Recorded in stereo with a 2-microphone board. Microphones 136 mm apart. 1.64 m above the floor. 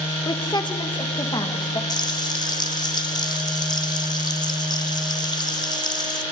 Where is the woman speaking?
30° left (ahead or behind), 1.6 m.